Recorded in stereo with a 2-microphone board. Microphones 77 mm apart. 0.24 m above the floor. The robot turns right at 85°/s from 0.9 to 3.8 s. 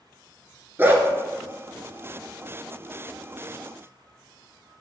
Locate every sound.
0.8 s a dog barking: 25° right (ahead or behind), 0.9 m; by 1.0 s 35° right (ahead or behind), 0.9 m